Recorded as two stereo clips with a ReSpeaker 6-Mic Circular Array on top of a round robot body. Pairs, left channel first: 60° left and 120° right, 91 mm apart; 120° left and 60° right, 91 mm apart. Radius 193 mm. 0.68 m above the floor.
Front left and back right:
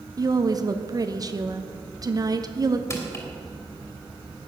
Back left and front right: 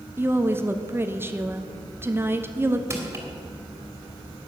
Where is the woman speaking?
110° right, 1.3 m.